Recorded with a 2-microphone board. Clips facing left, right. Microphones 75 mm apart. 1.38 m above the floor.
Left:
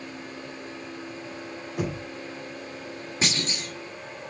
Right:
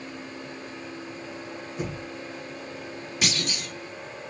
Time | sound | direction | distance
1.8 | knocking | 75° left (ahead or behind) | 2.5 m
3.2 | a clunk | 30° left (ahead or behind) | 1.6 m